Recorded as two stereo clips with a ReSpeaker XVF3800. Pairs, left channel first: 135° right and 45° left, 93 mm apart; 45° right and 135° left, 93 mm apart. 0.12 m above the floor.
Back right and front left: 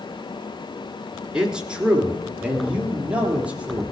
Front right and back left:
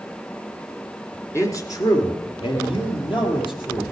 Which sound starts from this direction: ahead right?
A man speaking, at 1.3 s.